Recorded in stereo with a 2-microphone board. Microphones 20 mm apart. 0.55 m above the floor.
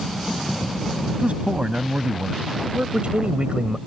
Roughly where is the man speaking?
Right.